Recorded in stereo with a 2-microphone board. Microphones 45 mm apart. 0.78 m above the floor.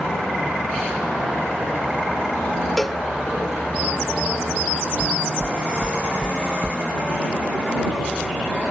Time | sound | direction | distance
2.8 | a cowbell | 5° left (ahead or behind) | ?
5.0 | knocking | 35° right (ahead or behind) | ?